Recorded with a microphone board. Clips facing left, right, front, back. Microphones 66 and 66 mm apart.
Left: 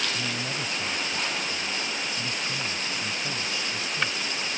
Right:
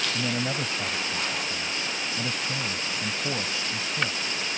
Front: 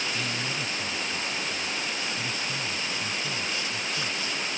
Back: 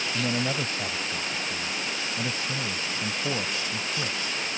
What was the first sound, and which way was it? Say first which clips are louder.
A man speaking: right 3 dB, back 4 dB; 150° right.